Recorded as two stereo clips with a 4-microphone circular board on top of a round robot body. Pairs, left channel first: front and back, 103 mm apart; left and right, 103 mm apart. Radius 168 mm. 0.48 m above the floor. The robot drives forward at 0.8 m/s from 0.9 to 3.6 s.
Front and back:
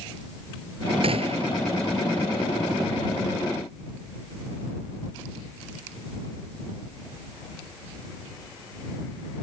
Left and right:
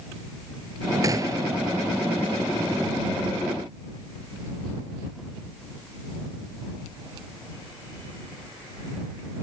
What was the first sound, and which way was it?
A gunshot, 150° right.